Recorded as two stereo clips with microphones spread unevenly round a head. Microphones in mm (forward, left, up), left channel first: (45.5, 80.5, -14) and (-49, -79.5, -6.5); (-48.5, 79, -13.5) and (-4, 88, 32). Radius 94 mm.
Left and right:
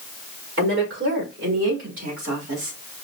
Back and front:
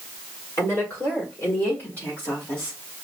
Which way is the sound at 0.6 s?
155° right.